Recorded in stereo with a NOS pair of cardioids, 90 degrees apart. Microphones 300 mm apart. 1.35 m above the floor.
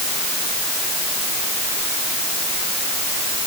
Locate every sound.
Only background noise.